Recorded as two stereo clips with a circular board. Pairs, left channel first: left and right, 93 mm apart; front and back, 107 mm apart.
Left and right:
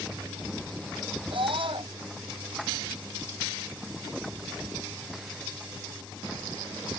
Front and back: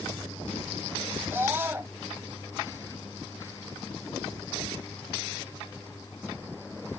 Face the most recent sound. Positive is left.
turn(degrees=-110)